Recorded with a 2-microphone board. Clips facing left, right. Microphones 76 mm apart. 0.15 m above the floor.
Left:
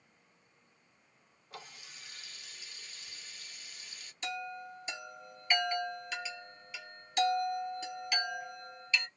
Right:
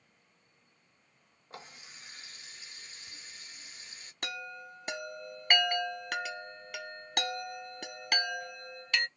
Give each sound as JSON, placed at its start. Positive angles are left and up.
{"t": 1.5, "sound": "a running tap", "side_deg": -35, "distance_m": 1.4}
{"t": 4.2, "sound": "a chime", "side_deg": -60, "distance_m": 0.6}